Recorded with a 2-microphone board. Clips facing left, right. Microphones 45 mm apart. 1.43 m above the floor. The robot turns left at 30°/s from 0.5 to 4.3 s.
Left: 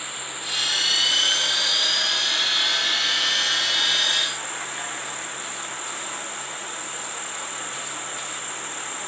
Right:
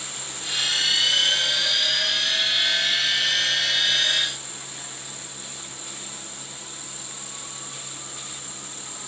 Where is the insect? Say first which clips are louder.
Left 3 dB; 160° left; by 9.1 s 45° left.